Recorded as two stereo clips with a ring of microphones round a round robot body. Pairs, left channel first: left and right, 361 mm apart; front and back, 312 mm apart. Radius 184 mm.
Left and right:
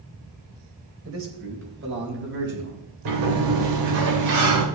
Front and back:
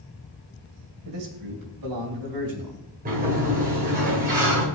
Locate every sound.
1.1 s a man speaking: 140° right, 2.5 m; by 2.8 s 155° right, 4.5 m
3.0 s a sliding door: 115° right, 3 m